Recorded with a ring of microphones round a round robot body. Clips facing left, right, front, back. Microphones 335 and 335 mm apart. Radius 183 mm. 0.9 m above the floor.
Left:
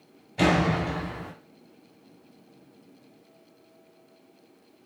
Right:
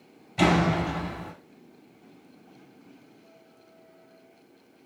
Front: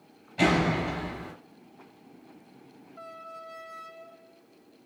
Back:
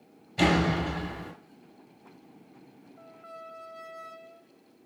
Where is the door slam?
140° right, 2.5 m.